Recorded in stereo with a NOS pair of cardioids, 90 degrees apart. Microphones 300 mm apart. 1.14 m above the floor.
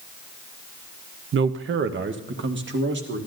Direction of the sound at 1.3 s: 45° right.